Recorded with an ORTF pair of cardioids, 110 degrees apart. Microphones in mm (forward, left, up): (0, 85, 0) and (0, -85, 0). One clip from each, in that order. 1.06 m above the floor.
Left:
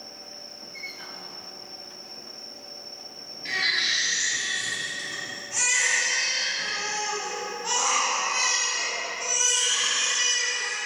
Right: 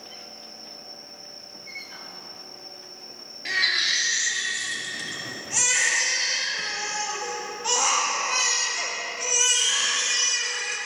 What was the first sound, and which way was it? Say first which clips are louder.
A baby crying: right 2 dB; 30° right.